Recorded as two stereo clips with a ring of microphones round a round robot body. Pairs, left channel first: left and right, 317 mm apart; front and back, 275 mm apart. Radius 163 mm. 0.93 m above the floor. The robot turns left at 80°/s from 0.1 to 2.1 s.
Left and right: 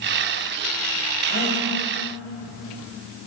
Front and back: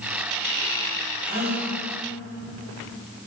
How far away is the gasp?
About 2.5 m.